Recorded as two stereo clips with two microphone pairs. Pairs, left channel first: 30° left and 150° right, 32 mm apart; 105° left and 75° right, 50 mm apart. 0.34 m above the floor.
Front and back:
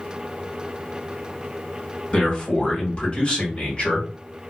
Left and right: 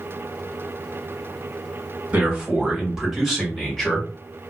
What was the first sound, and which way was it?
A man speaking, 20° right.